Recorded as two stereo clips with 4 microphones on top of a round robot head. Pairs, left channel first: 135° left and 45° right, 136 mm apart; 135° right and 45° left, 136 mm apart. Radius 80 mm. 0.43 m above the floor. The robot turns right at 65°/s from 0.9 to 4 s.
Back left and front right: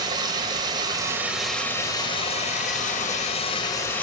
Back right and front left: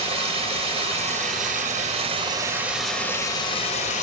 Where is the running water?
10° left, 2.5 m; by 4.0 s 150° right, 2.5 m.